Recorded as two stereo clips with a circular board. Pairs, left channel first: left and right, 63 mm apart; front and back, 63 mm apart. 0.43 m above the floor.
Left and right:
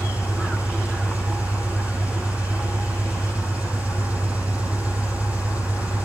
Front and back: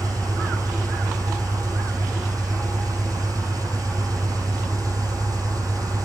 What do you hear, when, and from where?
0.0 s an engine running: 155° right, 6.5 m